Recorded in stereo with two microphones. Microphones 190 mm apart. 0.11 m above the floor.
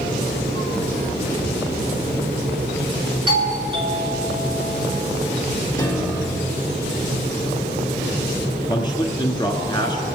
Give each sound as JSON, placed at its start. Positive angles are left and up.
{"t": 3.3, "sound": "a doorbell", "side_deg": -25, "distance_m": 2.0}
{"t": 5.8, "sound": "a piano", "side_deg": 20, "distance_m": 2.0}
{"t": 8.7, "sound": "a man speaking", "side_deg": 25, "distance_m": 1.2}